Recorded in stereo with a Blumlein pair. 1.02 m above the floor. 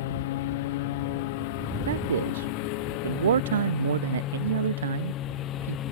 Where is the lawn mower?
55° left; by 5.9 s 30° left.